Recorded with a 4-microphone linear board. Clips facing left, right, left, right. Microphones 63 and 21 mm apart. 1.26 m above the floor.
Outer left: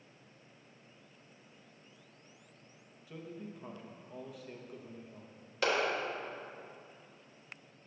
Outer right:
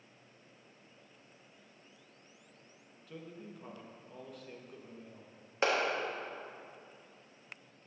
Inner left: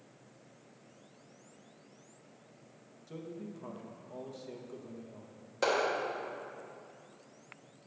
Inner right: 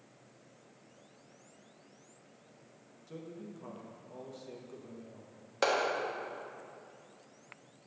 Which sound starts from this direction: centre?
A man speaking, at 3.1 s.